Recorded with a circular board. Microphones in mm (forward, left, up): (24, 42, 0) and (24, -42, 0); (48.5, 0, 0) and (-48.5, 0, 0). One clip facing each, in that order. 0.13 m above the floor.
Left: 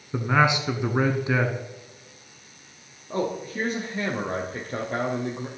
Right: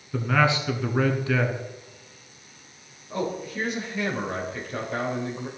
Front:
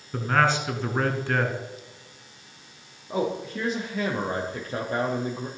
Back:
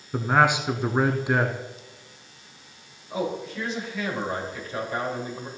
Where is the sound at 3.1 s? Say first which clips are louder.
Left 1 dB, front 2 dB; 40° left, 3 m.